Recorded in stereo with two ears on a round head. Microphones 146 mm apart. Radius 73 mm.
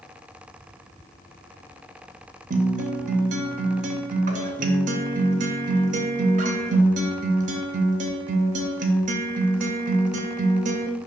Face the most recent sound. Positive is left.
turn(degrees=-50)  # may be behind; listen again after turning